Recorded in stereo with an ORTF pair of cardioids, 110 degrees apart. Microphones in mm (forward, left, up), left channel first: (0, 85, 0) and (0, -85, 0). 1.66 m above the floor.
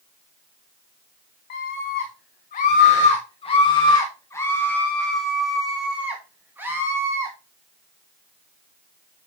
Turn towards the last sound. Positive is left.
turn(degrees=-15)